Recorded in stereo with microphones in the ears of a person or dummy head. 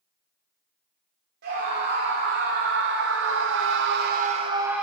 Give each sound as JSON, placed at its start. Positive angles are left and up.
{"t": 1.4, "sound": "a scream", "side_deg": -60, "distance_m": 2.5}